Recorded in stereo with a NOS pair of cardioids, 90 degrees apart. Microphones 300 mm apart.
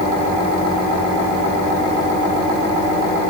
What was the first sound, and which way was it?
Only background noise.